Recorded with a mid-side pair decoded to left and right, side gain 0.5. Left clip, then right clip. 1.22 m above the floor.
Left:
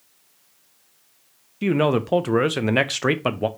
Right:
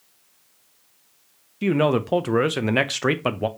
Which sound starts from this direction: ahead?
A man speaking, at 1.6 s.